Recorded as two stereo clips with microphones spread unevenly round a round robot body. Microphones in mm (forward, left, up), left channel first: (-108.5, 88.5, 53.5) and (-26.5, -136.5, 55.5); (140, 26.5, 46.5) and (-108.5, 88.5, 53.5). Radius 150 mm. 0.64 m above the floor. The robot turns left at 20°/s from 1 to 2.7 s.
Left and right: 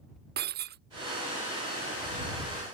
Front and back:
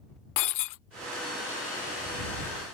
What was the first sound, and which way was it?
Breaking glass, 10° right.